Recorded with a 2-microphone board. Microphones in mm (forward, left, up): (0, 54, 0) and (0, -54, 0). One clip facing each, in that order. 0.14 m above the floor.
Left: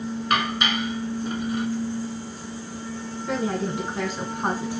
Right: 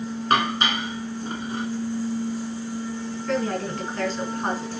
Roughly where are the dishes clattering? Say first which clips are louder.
Right 2 dB; right.